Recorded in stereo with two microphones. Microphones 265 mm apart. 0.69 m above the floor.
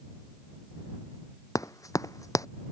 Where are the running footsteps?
10° left (ahead or behind).